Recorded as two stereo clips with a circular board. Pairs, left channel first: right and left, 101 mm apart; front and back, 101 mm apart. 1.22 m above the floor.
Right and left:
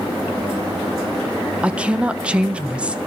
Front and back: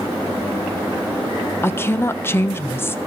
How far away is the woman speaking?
About 0.5 m.